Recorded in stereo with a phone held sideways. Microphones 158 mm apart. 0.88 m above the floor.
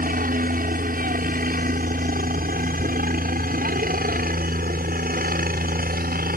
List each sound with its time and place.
0.0 s a helicopter: 60° right (ahead or behind)